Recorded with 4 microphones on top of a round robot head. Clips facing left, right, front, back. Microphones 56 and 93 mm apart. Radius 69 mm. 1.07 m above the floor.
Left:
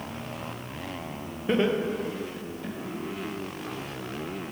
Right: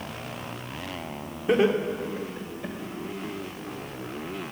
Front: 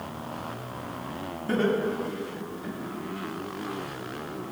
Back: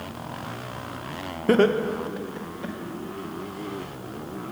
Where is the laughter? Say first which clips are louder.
Right 3 dB, back 6 dB; 170° right, 0.8 m; by 2.8 s 165° right, 1.8 m.